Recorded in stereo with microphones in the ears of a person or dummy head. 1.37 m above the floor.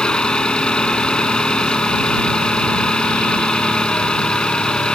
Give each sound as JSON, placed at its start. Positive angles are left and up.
{"t": 0.0, "sound": "an engine running", "side_deg": 5}